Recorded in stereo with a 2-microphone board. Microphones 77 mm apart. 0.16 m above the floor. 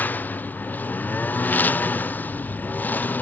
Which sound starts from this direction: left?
A lawn mower, at 0.0 s.